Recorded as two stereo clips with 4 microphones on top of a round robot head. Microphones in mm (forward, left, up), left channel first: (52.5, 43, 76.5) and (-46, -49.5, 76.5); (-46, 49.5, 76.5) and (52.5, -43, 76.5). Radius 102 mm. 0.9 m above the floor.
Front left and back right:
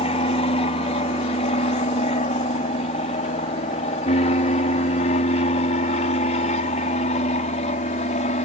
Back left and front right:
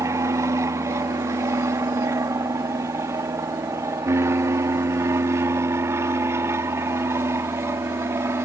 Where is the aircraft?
20° left; by 8.4 s 25° left.